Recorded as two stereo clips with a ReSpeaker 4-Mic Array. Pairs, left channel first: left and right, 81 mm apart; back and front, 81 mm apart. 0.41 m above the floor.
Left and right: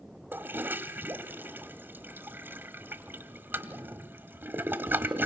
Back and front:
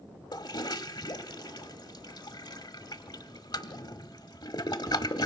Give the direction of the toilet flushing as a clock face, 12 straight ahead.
5 o'clock.